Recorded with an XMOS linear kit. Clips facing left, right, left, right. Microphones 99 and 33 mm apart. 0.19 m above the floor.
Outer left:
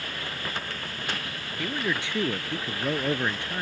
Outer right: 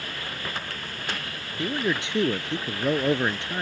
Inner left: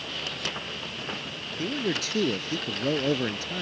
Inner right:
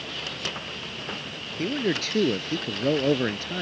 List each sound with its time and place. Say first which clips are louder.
1.6 s a man speaking: outer right 3 dB, inner right 3 dB; 20° right (ahead or behind)